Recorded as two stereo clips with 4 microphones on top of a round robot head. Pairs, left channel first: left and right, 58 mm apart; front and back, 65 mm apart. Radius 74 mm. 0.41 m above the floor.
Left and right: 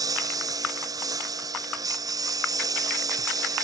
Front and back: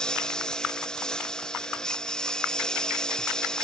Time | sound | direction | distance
0.0 | a lawn mower | 80° right | ?